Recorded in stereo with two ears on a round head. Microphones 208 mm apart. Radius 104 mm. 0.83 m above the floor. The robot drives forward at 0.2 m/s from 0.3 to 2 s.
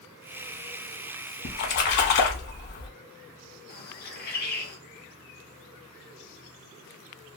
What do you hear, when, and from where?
1.4 s a splash: 50° left (ahead or behind), 0.8 m
3.7 s a bird: 45° left (ahead or behind), 0.9 m